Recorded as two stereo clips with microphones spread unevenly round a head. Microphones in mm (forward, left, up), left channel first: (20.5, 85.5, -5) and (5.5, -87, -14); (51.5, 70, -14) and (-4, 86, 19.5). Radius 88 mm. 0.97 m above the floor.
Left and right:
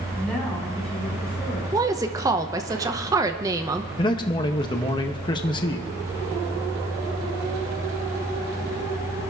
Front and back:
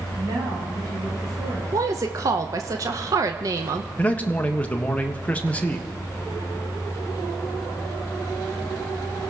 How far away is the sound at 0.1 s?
About 6 m.